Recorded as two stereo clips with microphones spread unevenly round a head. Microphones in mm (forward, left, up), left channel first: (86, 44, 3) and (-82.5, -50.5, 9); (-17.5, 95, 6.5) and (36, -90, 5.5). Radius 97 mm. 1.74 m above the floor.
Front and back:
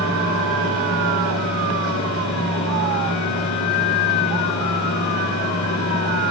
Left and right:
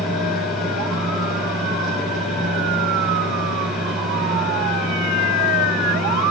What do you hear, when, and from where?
0.0 s a fan: 15° left, 3.5 m